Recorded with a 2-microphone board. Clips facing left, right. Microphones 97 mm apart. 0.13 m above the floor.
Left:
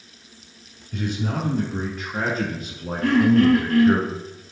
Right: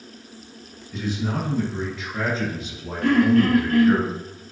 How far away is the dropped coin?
No dropped coin in this recording.